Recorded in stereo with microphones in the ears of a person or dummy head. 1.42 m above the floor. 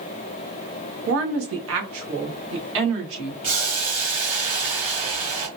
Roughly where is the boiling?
Right.